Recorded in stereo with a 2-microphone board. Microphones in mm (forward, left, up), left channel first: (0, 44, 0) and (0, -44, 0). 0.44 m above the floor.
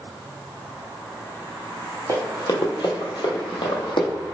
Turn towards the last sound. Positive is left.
turn(degrees=60)  # may be behind; listen again after turning